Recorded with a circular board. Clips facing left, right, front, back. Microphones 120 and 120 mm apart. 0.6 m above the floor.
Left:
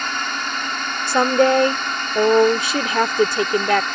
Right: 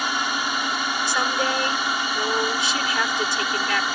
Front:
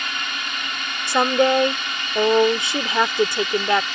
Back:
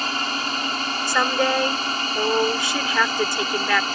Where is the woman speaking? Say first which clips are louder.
Left 11 dB, front 5 dB; 65° left.